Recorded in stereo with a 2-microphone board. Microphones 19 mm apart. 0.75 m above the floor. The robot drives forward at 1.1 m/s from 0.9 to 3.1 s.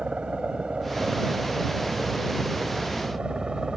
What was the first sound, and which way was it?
A helicopter, 70° right (ahead or behind).